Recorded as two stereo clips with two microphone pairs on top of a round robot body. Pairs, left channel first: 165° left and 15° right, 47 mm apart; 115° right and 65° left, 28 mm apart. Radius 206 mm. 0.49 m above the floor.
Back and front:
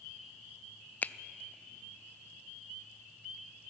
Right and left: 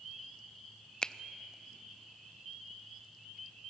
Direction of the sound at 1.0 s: 175° left.